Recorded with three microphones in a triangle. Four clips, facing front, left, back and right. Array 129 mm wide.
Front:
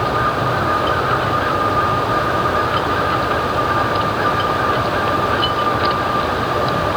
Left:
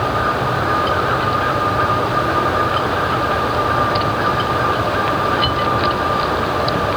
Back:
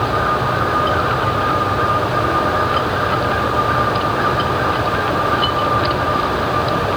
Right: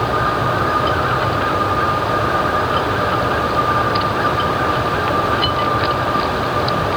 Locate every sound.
Only background noise.